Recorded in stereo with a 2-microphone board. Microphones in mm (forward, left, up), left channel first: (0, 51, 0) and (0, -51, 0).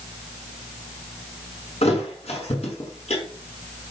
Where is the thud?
80° left, 6 m.